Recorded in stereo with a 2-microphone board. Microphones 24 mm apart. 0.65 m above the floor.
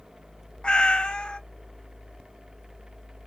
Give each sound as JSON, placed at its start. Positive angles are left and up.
{"t": 0.6, "sound": "a cat meowing", "side_deg": 50, "distance_m": 0.7}